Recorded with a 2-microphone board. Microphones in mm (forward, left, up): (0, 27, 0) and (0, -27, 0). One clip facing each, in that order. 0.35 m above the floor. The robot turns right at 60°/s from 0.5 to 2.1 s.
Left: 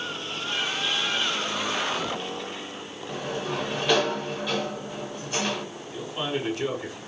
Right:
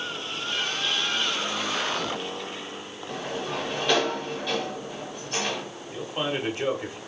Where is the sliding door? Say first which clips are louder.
Left 1 dB; 5° left (ahead or behind), 0.9 m.